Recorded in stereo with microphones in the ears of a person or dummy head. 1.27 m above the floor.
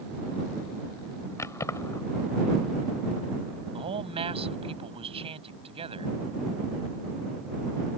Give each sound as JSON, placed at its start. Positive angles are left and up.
{"t": 1.4, "sound": "keys jangling", "side_deg": 15}
{"t": 3.7, "sound": "a man speaking", "side_deg": -30}